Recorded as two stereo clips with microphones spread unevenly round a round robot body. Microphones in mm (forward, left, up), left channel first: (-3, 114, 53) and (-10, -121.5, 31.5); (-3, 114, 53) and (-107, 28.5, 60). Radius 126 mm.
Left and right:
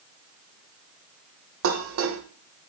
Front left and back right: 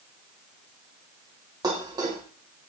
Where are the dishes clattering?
75° right, 1.2 m.